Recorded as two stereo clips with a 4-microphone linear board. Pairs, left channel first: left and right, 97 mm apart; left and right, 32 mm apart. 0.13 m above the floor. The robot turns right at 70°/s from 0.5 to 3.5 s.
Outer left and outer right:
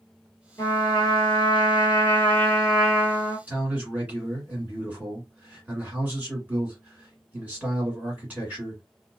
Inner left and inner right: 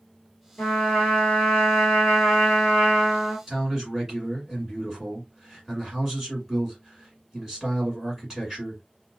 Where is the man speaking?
15° right (ahead or behind), 1.6 m.